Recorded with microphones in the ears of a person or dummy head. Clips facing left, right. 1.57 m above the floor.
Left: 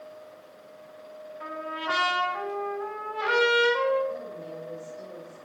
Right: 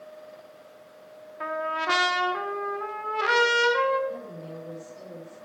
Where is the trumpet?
60° right (ahead or behind), 1.3 m.